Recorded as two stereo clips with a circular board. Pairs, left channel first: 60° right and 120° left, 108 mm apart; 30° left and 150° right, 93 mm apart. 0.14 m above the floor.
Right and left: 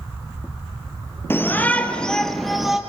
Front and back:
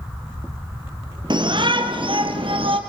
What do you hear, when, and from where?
1.3 s a shout: 125° right, 3 m; by 2.8 s 155° right, 4 m